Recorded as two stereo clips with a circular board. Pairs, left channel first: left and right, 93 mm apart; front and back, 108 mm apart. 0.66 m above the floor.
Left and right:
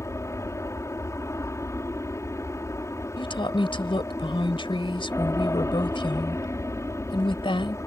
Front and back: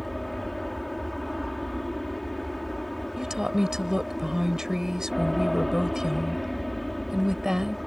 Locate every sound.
0.0 s an aircraft: 90° left
3.2 s a woman speaking: 95° left